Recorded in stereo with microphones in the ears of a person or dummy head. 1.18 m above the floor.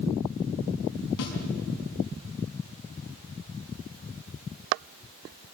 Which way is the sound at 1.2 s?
85° left.